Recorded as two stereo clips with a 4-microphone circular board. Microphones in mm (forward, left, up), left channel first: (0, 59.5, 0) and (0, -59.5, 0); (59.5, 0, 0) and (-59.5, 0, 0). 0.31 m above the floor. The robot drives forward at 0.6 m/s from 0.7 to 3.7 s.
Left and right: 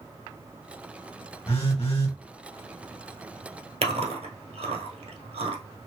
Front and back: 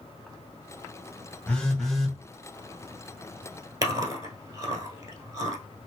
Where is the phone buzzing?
75° left, 1.6 m; by 2.2 s 95° left, 1.6 m.